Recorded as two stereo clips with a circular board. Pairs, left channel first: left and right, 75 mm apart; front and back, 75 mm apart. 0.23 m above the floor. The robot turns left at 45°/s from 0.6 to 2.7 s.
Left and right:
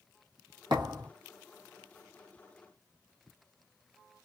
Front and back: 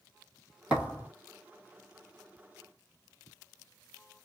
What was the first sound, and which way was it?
A thud, 105° right.